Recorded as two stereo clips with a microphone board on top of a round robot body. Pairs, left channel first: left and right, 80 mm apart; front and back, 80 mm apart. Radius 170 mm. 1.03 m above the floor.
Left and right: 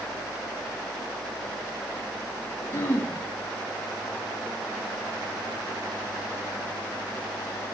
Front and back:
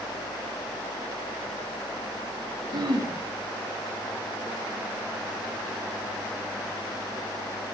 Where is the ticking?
No ticking in this recording.